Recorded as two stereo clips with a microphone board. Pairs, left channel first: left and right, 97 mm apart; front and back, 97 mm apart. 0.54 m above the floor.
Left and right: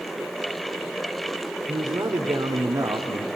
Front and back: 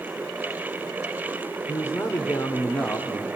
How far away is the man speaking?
About 2 m.